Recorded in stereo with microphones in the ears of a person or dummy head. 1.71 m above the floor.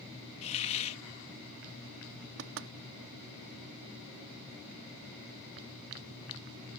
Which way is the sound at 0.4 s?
35° left (ahead or behind).